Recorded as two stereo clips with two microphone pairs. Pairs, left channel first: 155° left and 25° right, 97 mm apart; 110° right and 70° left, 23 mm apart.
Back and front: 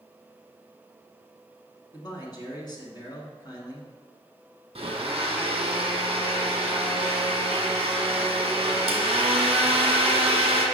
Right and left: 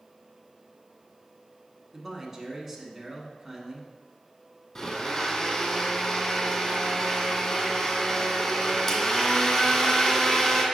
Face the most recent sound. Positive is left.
turn(degrees=-50)